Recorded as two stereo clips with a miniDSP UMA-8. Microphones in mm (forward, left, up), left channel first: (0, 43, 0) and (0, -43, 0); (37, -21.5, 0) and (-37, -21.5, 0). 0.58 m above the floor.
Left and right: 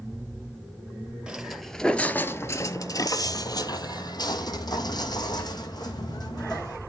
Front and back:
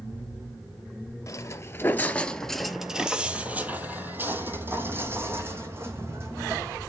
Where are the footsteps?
15° right, 0.7 m; by 6.8 s 125° left, 2.5 m.